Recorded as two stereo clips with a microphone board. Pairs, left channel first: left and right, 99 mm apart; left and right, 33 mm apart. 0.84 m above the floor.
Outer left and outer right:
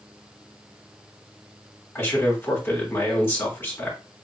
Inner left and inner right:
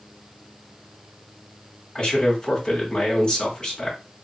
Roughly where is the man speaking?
Left.